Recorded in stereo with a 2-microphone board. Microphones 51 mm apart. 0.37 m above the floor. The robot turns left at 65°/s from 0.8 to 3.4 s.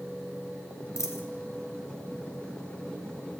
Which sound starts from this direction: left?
A dropped coin, at 1.0 s.